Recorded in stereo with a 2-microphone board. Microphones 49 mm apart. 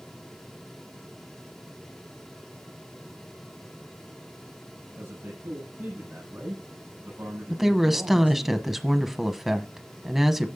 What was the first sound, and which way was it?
A man speaking, 50° right (ahead or behind).